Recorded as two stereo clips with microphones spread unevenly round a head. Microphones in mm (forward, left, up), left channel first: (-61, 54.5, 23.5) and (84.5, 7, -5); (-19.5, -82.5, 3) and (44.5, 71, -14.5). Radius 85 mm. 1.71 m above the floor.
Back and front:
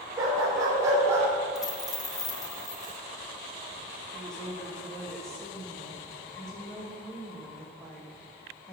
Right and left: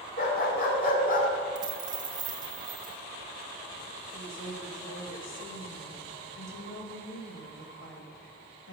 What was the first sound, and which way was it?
A dog barking, 90° right.